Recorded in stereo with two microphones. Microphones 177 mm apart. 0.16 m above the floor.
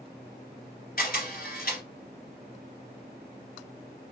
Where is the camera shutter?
60° left (ahead or behind), 2.5 m.